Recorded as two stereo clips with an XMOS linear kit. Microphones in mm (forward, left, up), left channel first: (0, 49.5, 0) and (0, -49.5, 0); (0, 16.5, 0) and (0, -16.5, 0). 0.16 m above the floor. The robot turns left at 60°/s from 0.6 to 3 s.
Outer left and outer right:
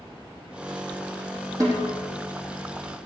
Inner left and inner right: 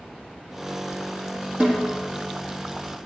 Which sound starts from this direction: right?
A snare drum, at 1.6 s.